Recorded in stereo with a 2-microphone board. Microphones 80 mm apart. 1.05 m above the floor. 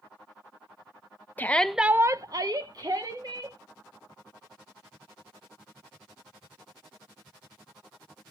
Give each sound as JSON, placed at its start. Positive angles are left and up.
{"t": 1.4, "sound": "a shout", "side_deg": 20, "distance_m": 0.9}